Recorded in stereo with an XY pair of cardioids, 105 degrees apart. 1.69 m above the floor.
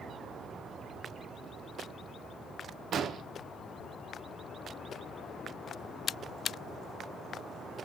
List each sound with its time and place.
2.9 s an explosion: 55° right, 1.1 m